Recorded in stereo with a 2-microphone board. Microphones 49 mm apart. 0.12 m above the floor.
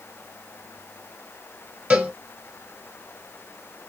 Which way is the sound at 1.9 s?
25° right (ahead or behind).